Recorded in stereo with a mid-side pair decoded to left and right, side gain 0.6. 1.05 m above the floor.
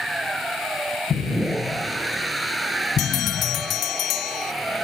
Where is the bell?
60° left.